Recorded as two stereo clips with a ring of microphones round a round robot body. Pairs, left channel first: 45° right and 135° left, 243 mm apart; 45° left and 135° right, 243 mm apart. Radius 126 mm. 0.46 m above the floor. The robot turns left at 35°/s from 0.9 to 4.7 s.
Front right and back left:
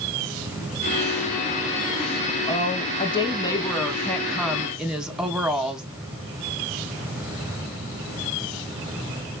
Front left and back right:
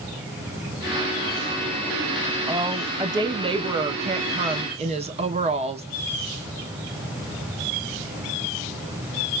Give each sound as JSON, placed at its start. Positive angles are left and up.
{"t": 2.5, "sound": "a woman speaking", "azimuth_deg": -65, "distance_m": 1.1}